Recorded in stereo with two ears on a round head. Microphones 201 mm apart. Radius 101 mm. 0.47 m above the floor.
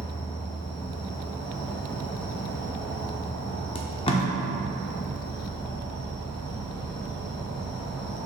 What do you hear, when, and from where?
0.0 s an insect: 20° left (ahead or behind), 0.9 m
3.8 s tape being pulled: 25° left (ahead or behind), 0.8 m